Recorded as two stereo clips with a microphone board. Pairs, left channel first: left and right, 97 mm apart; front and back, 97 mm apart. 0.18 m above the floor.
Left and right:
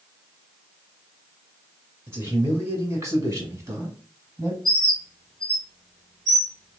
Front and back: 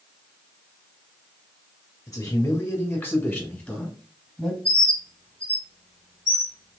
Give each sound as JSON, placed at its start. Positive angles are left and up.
{"t": 2.1, "sound": "a man speaking", "azimuth_deg": -35, "distance_m": 2.0}
{"t": 4.7, "sound": "a bird", "azimuth_deg": 5, "distance_m": 1.5}